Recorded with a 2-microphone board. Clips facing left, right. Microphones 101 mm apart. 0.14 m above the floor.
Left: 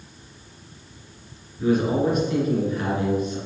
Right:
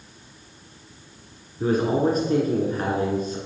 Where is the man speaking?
35° right (ahead or behind), 1.8 m.